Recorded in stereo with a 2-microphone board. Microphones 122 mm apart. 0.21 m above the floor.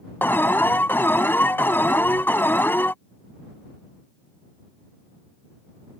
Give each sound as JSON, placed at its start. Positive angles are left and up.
{"t": 0.2, "sound": "an alarm", "side_deg": 15}